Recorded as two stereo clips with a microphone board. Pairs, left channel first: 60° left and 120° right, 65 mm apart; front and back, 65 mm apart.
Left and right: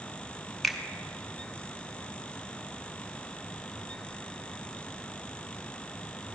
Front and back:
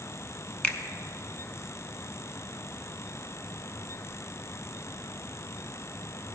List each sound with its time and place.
0.6 s a finger snap: 30° right, 0.8 m